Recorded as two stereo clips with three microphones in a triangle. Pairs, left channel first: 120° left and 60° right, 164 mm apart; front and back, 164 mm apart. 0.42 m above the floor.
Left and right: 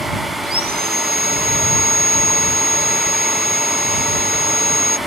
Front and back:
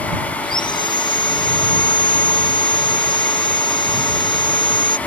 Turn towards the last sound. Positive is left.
turn(degrees=-60)